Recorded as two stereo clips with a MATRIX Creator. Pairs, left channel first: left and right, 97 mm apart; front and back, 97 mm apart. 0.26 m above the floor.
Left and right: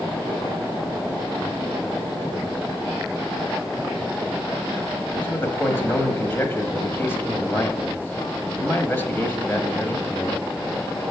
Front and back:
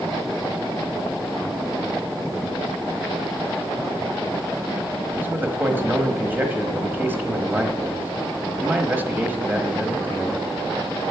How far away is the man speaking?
About 1.2 m.